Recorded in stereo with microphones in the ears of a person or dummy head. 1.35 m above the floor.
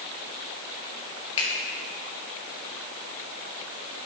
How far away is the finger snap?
About 2 m.